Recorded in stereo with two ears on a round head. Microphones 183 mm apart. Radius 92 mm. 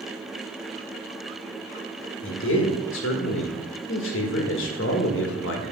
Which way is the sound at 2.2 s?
65° left (ahead or behind).